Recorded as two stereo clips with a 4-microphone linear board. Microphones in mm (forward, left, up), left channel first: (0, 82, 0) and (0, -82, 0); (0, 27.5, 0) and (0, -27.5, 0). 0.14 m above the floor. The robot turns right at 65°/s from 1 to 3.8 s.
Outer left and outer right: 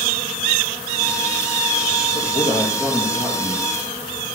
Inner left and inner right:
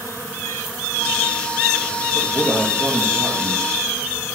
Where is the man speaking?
130° left, 3.5 m; by 3.7 s 130° right, 3.5 m.